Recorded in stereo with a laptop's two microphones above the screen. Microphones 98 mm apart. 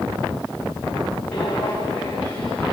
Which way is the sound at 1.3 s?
15° left (ahead or behind).